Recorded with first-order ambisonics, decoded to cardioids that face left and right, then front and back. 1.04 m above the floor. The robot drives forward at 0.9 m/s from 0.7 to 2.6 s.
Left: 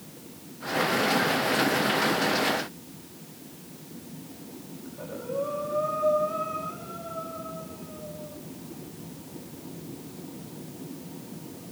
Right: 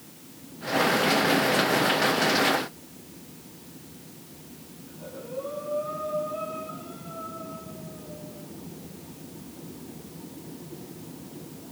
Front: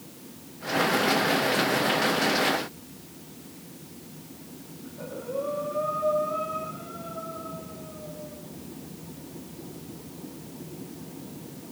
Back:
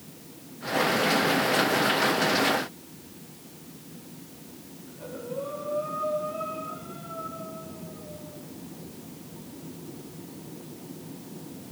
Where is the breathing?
50° left, 10 m.